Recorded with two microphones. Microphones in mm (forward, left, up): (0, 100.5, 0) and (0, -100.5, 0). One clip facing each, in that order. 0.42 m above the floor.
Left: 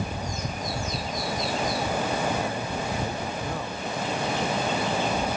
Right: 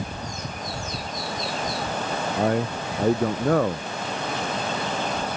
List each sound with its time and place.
2.4 s a man speaking: 70° right (ahead or behind)